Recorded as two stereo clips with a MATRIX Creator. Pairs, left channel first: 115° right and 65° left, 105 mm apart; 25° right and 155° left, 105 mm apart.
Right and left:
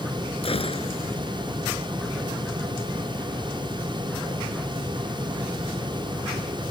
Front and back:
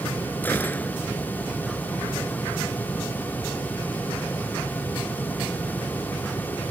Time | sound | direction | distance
0.4 | a gunshot | 95° right | ?